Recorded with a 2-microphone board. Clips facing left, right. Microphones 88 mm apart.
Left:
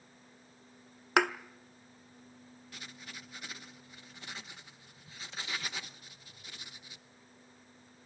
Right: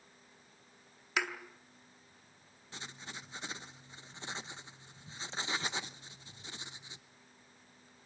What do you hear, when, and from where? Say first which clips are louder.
1.2 s a thud: left 9 dB; 60° left (ahead or behind), 0.8 m
2.7 s writing: right 3 dB; 25° right (ahead or behind), 0.7 m